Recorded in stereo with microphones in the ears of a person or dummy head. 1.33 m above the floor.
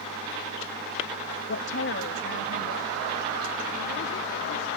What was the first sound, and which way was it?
A woman speaking, 65° left (ahead or behind).